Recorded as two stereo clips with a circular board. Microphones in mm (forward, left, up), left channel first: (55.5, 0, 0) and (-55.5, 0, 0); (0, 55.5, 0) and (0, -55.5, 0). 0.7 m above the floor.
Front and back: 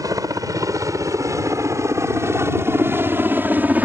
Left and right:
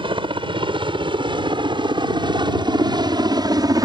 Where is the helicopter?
125° right; by 3.9 s 110° right.